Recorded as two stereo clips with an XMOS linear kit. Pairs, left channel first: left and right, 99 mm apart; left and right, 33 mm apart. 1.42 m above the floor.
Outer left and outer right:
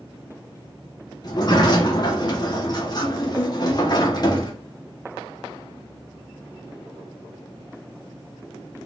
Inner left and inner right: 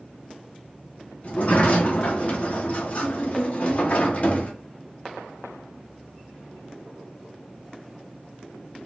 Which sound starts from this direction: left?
A sliding door, at 1.2 s.